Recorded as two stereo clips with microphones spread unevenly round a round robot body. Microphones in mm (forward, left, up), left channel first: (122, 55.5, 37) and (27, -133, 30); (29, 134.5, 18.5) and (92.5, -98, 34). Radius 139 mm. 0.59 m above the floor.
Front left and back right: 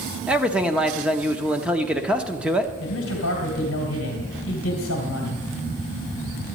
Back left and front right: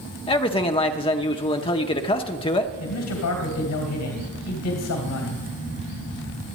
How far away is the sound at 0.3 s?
About 0.8 m.